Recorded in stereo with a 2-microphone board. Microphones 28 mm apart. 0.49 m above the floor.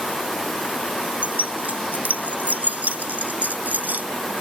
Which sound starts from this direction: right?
Keys jangling, at 1.2 s.